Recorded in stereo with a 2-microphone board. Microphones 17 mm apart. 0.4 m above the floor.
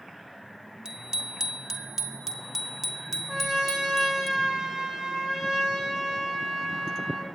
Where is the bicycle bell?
45° right (ahead or behind), 2 m; by 4.3 s 5° right (ahead or behind), 4 m.